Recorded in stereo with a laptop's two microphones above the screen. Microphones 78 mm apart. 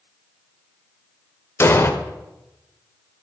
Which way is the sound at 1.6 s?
35° left (ahead or behind).